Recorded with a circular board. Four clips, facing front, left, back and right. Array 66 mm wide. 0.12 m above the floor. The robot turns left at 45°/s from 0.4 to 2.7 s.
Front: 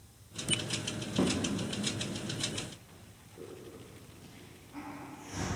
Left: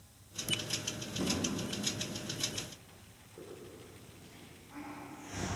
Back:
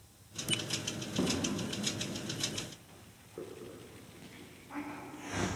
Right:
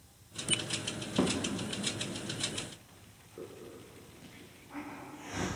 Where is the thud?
80° right, 6.5 m; by 1.4 s 85° right, 6.5 m.